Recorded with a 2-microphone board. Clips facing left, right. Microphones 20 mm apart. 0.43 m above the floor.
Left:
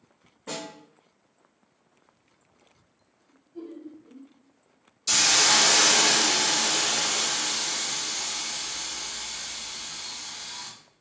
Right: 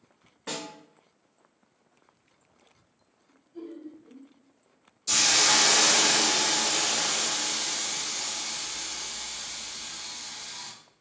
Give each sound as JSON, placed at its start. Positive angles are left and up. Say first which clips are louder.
{"t": 0.5, "sound": "a snare drum", "louder": "even", "side_deg": -60, "distance_m": 0.9}
{"t": 3.3, "sound": "laughter", "louder": "left 1 dB", "side_deg": -20, "distance_m": 0.8}
{"t": 5.1, "sound": "a hiss", "louder": "left 2 dB", "side_deg": 35, "distance_m": 0.5}